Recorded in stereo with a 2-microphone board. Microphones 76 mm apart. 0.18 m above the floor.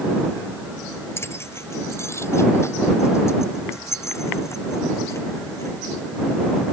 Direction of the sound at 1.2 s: 35° left (ahead or behind).